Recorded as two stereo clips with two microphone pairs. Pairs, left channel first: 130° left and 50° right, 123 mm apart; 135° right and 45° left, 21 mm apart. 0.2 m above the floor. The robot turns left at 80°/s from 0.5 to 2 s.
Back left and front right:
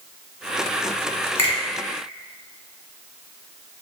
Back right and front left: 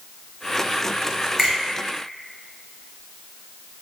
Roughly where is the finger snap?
Behind left.